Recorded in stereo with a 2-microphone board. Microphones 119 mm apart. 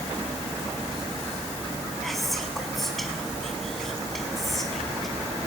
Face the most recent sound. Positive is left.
turn(degrees=0)  # may be behind; listen again after turning